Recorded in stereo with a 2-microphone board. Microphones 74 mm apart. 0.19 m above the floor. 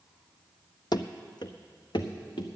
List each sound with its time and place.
0.9 s running footsteps: 70° left (ahead or behind), 0.6 m; by 2.5 s 85° left, 1.3 m